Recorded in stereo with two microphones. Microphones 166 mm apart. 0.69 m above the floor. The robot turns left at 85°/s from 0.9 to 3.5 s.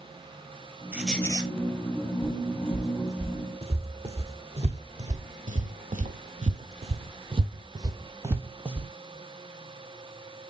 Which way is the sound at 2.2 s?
70° left (ahead or behind).